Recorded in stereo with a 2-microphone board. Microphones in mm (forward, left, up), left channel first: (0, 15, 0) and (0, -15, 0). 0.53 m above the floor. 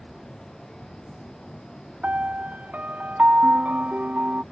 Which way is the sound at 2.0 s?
65° right (ahead or behind).